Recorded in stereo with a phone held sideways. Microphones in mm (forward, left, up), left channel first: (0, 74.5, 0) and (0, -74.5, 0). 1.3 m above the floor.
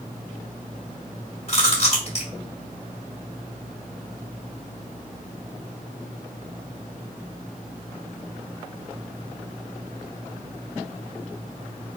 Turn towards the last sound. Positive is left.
turn(degrees=45)  # may be behind; listen again after turning